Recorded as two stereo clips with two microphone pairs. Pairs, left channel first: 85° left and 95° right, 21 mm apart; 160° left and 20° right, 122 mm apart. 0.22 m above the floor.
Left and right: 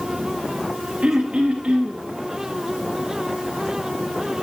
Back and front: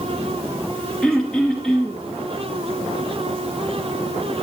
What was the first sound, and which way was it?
Throat clearing, 115° right.